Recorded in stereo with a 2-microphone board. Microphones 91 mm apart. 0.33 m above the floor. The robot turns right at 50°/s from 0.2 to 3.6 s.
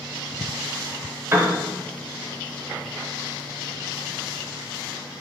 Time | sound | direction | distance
1.3 | a piano | 30° right (ahead or behind) | 0.5 m